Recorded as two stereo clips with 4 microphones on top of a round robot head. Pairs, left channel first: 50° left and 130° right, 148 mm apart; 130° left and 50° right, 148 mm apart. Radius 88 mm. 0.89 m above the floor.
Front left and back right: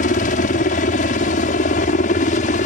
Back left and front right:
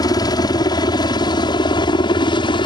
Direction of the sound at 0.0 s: 70° left.